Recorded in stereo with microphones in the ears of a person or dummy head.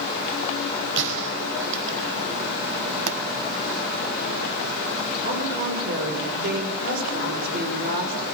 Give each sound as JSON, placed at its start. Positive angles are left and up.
{"t": 1.0, "sound": "a gunshot", "side_deg": -65, "distance_m": 4.0}
{"t": 3.1, "sound": "a pop", "side_deg": -65, "distance_m": 1.3}
{"t": 5.2, "sound": "a woman speaking", "side_deg": -50, "distance_m": 7.0}